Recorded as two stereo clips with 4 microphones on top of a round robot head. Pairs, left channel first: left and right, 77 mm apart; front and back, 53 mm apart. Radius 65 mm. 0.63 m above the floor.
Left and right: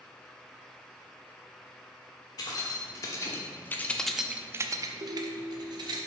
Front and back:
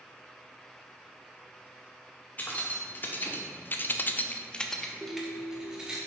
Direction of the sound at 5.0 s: 100° right.